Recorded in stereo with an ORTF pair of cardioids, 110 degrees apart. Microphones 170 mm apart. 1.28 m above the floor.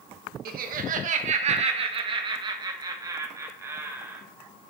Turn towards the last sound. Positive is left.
turn(degrees=-15)